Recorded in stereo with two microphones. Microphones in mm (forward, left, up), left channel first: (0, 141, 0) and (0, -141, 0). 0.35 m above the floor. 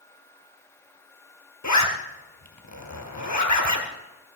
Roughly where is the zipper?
Left.